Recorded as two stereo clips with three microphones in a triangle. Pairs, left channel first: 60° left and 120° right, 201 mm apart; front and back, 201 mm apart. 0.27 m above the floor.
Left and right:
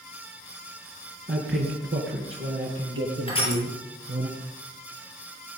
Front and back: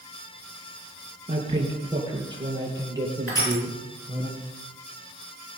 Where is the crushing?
5° right, 6.5 m.